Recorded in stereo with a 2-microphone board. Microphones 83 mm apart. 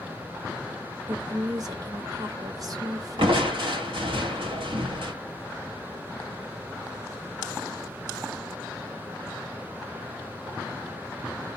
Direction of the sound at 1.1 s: 45° right (ahead or behind).